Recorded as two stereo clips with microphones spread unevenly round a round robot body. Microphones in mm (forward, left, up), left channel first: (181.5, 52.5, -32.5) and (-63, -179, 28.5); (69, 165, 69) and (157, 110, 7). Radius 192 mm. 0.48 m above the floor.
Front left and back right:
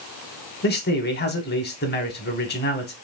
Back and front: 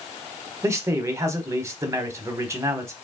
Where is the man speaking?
5° right, 1.2 m.